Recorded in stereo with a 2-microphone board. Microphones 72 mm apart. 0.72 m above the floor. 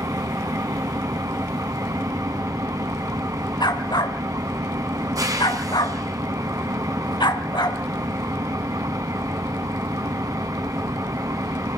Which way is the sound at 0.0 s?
55° right (ahead or behind).